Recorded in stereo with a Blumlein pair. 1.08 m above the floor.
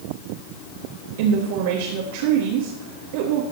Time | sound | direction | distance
1.2 | a woman speaking | 50° right | 1.5 m